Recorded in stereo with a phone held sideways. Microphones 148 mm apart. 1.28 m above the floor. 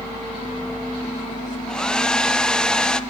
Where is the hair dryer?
5° left (ahead or behind), 0.9 m.